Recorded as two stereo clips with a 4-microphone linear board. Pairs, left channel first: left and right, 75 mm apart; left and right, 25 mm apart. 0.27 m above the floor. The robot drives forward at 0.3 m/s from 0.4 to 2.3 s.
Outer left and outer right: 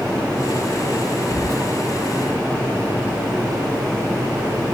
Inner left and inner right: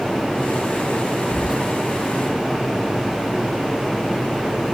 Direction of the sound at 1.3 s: 35° right (ahead or behind).